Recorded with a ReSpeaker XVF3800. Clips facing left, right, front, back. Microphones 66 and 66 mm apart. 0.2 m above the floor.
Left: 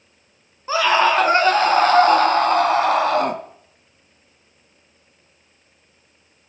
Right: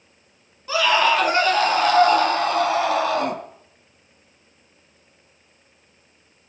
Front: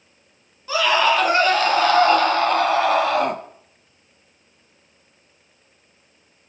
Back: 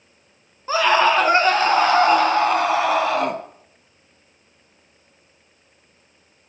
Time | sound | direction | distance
0.7 | a scream | 140° left | 2.5 m